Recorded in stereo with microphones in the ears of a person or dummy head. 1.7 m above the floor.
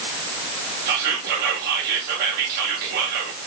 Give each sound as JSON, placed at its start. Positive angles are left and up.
{"t": 0.9, "sound": "whispering", "side_deg": -55, "distance_m": 2.5}